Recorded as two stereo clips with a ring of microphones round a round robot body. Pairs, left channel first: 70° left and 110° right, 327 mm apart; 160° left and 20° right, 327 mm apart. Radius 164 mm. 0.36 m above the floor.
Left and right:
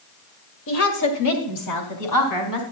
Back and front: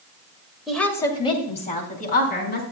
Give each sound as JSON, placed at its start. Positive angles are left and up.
{"t": 0.7, "sound": "a woman speaking", "azimuth_deg": 65, "distance_m": 1.7}